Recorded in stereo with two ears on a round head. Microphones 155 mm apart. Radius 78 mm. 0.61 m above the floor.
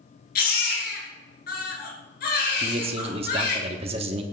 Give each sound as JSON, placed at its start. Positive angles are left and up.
{"t": 0.3, "sound": "a baby crying", "side_deg": 60, "distance_m": 3.5}
{"t": 2.6, "sound": "a man speaking", "side_deg": -35, "distance_m": 1.2}